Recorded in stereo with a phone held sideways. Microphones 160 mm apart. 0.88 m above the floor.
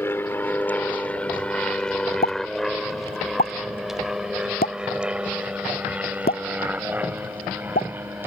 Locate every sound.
0.0 s an aircraft: 15° left (ahead or behind); by 8.3 s 15° right (ahead or behind)
2.2 s a pop: 70° left (ahead or behind)